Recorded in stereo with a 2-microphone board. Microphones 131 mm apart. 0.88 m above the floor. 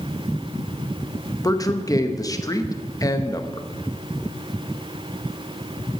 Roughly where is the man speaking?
Left.